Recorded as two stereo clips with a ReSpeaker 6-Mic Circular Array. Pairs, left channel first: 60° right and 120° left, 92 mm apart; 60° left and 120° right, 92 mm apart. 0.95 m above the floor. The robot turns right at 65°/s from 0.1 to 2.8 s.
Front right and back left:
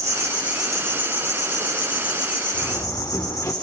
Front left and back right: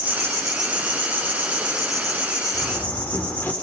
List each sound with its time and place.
0.0 s an insect: 175° left, 6.5 m; by 3.6 s 10° right, 6.5 m
2.5 s a door slam: 20° right, 2.5 m; by 3.5 s 5° right, 2.5 m